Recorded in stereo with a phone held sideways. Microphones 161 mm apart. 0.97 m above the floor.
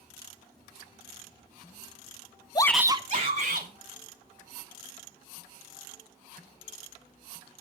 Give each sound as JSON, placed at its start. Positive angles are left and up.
{"t": 2.5, "sound": "a shout", "side_deg": 30, "distance_m": 0.6}